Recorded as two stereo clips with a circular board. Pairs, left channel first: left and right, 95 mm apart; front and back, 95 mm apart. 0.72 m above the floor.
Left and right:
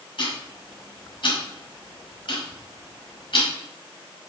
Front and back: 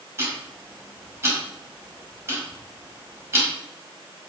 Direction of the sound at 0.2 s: 120° left.